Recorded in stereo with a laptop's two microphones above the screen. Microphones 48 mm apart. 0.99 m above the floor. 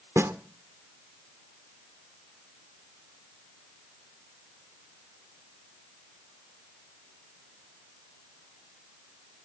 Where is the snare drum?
70° right (ahead or behind), 2 m.